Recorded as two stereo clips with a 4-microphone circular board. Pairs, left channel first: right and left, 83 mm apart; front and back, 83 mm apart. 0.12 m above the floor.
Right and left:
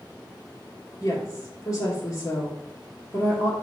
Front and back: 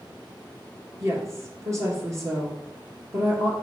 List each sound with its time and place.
1.0 s a woman speaking: 130° right, 2.5 m